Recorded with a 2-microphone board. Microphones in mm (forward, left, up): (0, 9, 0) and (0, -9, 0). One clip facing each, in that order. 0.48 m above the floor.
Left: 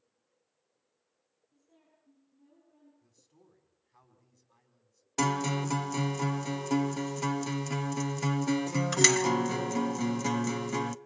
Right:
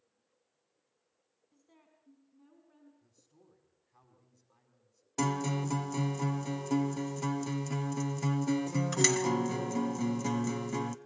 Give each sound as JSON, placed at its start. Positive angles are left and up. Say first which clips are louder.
{"t": 1.5, "sound": "a woman speaking", "louder": "right 1 dB", "side_deg": -60, "distance_m": 5.0}
{"t": 3.0, "sound": "a man speaking", "louder": "left 1 dB", "side_deg": 20, "distance_m": 4.5}
{"t": 5.2, "sound": "a guitar", "louder": "left 3 dB", "side_deg": 30, "distance_m": 0.6}